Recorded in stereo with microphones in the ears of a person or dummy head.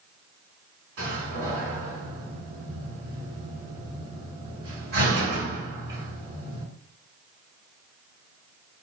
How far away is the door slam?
About 1.9 m.